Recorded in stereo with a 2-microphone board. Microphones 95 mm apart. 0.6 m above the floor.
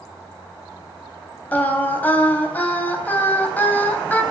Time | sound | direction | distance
1.5 | singing | 20° left (ahead or behind) | 3 m